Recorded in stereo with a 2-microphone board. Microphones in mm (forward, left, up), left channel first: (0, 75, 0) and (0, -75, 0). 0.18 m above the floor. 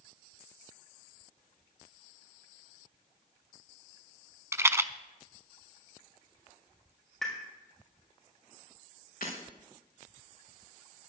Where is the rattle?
20° right (ahead or behind), 0.5 m.